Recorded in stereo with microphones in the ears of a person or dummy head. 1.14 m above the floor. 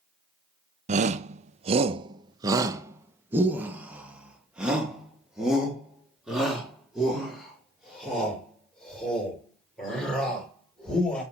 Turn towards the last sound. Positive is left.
turn(degrees=0)  # may be behind; listen again after turning